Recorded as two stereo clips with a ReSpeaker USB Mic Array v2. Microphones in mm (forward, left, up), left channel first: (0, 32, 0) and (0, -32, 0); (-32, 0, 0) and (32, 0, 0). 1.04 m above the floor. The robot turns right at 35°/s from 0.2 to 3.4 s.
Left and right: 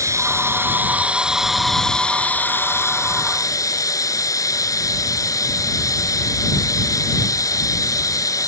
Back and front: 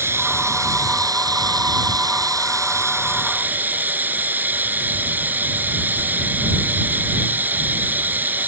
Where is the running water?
50° right; by 8.5 s 60° left.